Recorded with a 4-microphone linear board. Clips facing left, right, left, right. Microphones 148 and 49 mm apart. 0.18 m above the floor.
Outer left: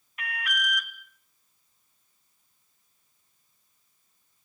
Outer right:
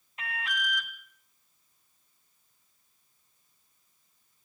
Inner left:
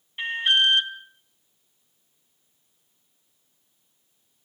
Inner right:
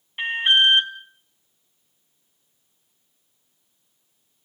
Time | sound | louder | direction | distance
0.2 | an alarm | outer left 2 dB, inner right 3 dB | 25° right (ahead or behind) | 1.8 m